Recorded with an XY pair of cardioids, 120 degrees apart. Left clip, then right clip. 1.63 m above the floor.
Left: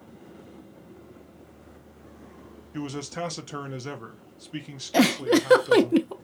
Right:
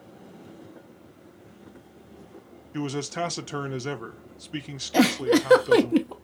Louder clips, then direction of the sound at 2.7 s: Right 3 dB; 20° right.